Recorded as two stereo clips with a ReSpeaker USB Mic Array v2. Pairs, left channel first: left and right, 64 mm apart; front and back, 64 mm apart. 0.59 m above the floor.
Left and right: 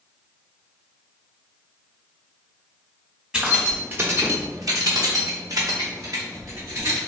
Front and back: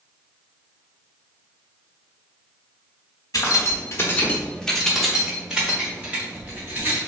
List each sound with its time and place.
3.3 s keys jangling: 15° right, 0.8 m; by 7.0 s 125° right, 1.7 m